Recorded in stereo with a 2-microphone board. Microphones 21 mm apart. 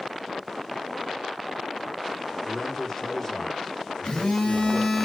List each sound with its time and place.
2.4 s a man speaking: 15° left (ahead or behind), 1.6 m
4.0 s a phone buzzing: 45° left (ahead or behind), 1.5 m